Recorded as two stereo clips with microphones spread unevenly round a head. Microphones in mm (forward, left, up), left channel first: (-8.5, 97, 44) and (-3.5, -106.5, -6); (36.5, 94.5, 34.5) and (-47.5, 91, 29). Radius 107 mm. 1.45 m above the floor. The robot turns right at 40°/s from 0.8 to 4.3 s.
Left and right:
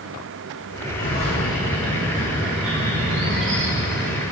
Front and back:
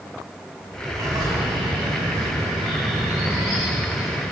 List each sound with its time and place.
1.0 s a bird: 140° left, 3.5 m; by 4.2 s 90° right, 3.5 m